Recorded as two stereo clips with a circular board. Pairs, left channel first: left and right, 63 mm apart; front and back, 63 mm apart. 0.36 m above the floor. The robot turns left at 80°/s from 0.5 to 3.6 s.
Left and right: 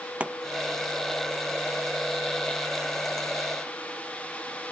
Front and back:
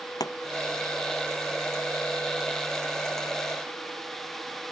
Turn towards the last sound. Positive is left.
turn(degrees=95)